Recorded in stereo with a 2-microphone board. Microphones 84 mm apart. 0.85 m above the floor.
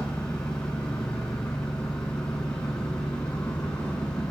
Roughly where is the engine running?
Centre.